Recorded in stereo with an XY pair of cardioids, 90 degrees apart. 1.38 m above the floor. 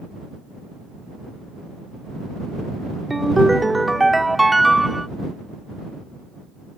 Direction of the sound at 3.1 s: 15° right.